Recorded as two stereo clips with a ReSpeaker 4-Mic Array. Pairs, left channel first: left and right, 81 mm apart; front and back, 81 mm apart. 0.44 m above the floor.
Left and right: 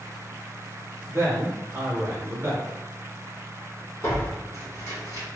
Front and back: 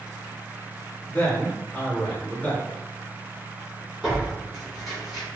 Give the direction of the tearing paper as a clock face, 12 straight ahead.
9 o'clock.